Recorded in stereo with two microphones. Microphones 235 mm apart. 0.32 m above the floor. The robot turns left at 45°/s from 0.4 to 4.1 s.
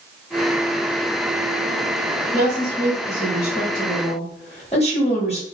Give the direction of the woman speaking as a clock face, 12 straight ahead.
8 o'clock.